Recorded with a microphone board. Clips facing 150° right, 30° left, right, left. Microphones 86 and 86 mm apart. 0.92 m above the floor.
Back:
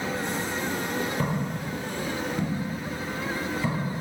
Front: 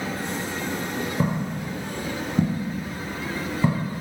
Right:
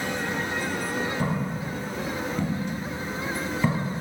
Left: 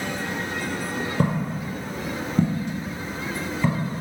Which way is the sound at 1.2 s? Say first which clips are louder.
Front 3 dB, left 3 dB; 110° left.